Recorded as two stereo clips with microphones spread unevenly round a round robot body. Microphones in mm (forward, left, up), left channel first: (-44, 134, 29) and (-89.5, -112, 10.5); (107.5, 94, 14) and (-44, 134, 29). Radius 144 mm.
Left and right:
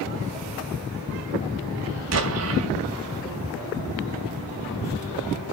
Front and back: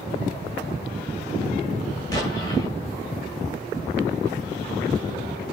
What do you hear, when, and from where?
2.1 s an explosion: 85° right, 2.5 m